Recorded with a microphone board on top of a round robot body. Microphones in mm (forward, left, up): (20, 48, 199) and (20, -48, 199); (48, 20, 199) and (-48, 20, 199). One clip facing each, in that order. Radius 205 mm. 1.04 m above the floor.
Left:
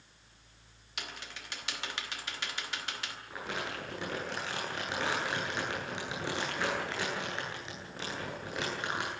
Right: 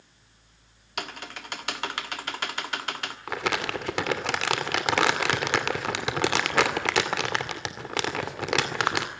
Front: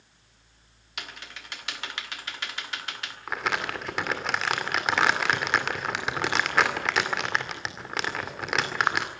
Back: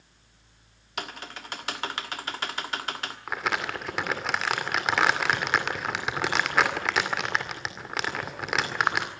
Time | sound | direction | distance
1.0 | typing on a keyboard | 130° right | 1.4 m
3.3 | crumpling | 90° right | 2.5 m